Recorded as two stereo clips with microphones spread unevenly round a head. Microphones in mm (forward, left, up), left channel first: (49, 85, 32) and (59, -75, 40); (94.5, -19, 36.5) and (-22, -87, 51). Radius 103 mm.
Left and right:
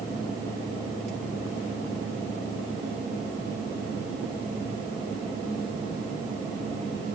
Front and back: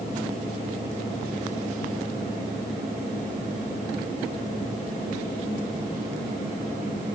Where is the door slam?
No door slam in this recording.